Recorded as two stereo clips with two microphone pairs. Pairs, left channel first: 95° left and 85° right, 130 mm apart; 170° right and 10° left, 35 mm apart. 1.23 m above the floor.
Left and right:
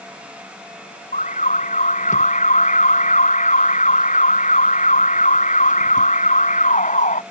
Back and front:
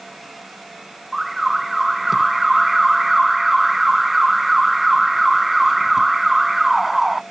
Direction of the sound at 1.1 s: 95° left.